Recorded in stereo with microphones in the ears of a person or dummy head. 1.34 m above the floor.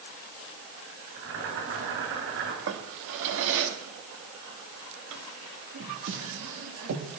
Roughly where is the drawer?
Right.